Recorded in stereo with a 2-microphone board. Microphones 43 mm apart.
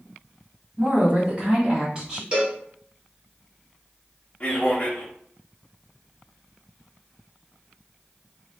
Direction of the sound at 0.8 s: 40° right (ahead or behind).